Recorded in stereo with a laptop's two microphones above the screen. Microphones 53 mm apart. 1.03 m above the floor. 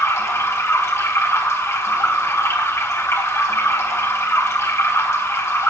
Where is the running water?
55° left (ahead or behind), 3 m.